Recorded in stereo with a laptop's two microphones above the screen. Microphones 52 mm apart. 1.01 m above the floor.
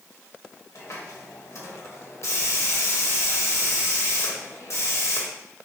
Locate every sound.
0.8 s a hiss: 55° left (ahead or behind), 1.1 m